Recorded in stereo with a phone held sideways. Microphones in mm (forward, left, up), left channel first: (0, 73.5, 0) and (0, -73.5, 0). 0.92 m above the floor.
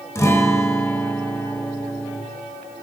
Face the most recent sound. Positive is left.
turn(degrees=20)  # may be behind; listen again after turning